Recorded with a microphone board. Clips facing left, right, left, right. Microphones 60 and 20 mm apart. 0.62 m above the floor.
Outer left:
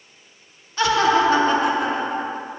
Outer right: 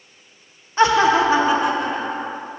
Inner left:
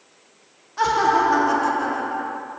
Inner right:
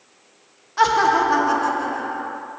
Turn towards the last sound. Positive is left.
turn(degrees=10)  # may be behind; listen again after turning